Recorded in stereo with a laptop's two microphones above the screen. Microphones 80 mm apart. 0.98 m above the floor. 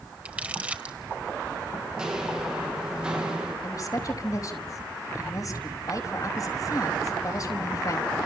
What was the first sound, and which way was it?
Crumpling, 20° right (ahead or behind).